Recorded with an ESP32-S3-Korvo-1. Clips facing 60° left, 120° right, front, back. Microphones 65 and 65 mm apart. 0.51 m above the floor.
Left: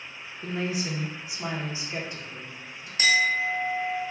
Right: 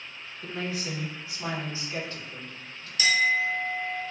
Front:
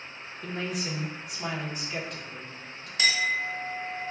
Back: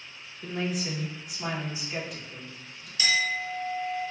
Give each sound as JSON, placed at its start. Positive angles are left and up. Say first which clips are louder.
{"t": 0.4, "sound": "a woman speaking", "louder": "left 3 dB, back 2 dB", "azimuth_deg": 95, "distance_m": 0.7}
{"t": 3.0, "sound": "a clink", "louder": "left 1 dB, front 1 dB", "azimuth_deg": 20, "distance_m": 1.2}